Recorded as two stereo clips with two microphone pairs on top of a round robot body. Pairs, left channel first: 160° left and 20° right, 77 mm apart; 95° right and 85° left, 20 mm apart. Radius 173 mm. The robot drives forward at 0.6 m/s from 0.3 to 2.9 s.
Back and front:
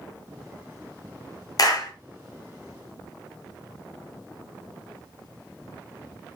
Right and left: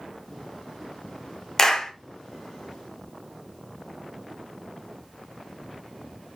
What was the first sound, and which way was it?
A clap, 165° right.